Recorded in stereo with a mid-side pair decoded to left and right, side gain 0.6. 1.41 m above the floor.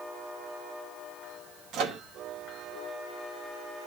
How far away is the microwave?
About 2 m.